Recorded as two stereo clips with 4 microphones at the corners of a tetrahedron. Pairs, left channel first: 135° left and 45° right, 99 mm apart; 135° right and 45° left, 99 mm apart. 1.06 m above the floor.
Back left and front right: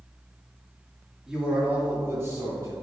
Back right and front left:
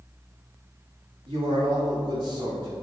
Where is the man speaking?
40° left, 2.5 m; by 2.7 s 10° left, 4 m.